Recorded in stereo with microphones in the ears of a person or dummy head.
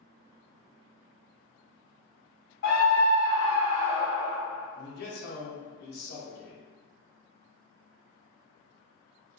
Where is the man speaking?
50° left (ahead or behind), 0.7 m.